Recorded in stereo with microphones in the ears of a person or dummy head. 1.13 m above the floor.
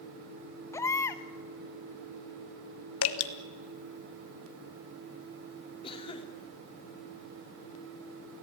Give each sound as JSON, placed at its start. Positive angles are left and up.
{"t": 0.7, "sound": "a baby crying", "side_deg": 15, "distance_m": 0.9}
{"t": 3.0, "sound": "dripping", "side_deg": 65, "distance_m": 1.7}
{"t": 5.8, "sound": "a cough", "side_deg": 25, "distance_m": 3.5}